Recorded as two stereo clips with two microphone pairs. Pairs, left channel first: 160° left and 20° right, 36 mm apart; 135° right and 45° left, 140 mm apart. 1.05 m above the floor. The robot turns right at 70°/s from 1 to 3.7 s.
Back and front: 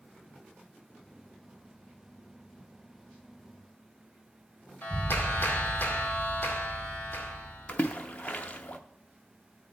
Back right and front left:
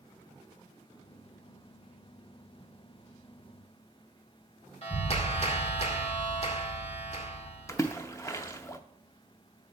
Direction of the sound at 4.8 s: 175° right.